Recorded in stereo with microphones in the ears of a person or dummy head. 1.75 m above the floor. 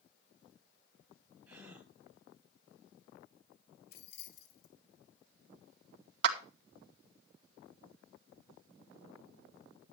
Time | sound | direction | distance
1.5 | a gasp | 10° right (ahead or behind) | 9.5 m
3.9 | keys jangling | 55° left (ahead or behind) | 1.7 m
6.2 | a clap | 65° right (ahead or behind) | 2 m